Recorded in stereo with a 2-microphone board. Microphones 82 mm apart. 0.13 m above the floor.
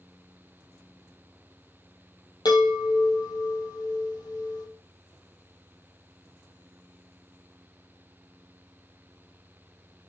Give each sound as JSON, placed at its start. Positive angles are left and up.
{"t": 2.5, "sound": "a chime", "side_deg": 65, "distance_m": 2.0}